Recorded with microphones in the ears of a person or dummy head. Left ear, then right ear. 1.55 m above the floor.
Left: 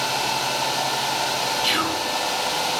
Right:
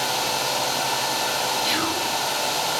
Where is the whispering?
65° left (ahead or behind), 2 m.